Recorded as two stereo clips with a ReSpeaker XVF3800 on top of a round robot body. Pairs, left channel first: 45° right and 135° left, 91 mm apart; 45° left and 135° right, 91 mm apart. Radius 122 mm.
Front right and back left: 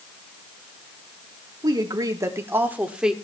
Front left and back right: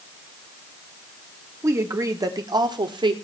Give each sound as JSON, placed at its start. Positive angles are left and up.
{"t": 1.6, "sound": "a woman speaking", "azimuth_deg": 170, "distance_m": 2.0}